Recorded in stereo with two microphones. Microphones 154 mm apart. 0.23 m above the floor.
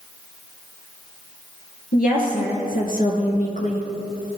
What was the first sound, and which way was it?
A woman speaking, 70° left (ahead or behind).